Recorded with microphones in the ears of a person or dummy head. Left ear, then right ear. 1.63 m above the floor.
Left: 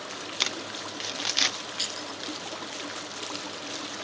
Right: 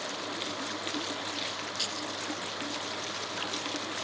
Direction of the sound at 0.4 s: 50° left (ahead or behind).